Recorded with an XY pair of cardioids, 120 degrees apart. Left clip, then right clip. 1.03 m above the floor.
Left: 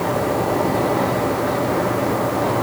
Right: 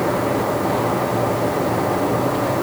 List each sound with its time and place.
Only background noise.